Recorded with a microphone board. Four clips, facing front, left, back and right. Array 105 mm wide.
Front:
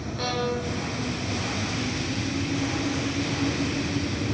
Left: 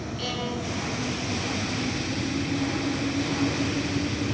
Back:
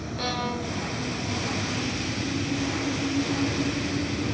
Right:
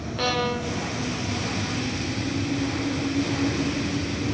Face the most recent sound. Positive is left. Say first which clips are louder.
# right 8 dB, front 2 dB
turn(degrees=-85)